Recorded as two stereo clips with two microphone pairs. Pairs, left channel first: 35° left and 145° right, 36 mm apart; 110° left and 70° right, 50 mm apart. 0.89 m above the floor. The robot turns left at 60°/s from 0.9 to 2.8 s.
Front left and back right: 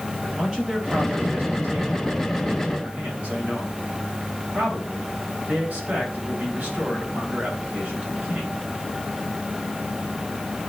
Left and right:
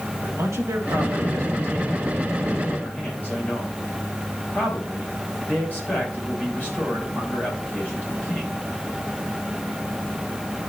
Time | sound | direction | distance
0.2 | a man speaking | 75° right | 4.5 m